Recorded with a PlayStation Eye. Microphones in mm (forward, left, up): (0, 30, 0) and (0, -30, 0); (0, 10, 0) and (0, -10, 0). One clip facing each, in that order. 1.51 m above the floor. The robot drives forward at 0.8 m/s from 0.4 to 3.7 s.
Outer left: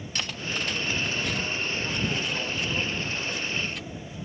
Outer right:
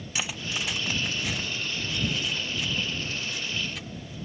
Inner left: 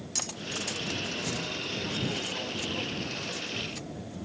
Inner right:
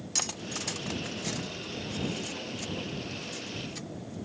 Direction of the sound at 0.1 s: 10° right (ahead or behind).